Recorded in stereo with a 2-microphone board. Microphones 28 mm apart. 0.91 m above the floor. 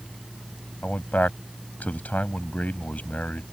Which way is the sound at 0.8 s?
75° left (ahead or behind).